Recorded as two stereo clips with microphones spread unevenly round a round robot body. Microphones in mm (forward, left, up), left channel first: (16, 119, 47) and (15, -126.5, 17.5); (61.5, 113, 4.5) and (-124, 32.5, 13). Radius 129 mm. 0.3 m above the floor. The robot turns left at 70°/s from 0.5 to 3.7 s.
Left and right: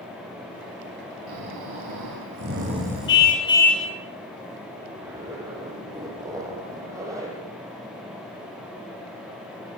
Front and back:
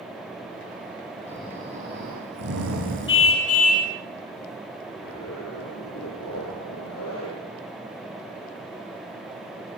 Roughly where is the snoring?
Ahead right.